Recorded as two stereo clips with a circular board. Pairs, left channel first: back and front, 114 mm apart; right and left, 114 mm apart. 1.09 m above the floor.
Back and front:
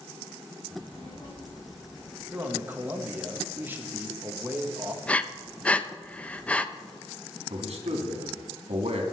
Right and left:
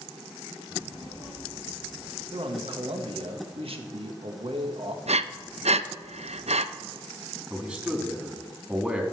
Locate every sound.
0.7 s a child speaking: 140° right, 5 m; by 2.2 s 145° right, 7 m
2.3 s a man speaking: 70° left, 1.6 m
5.1 s breathing: 100° left, 0.5 m
7.5 s a man speaking: 10° left, 2.5 m